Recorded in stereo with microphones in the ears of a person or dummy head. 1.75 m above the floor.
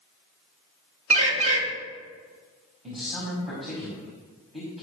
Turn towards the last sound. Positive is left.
turn(degrees=0)  # may be behind; listen again after turning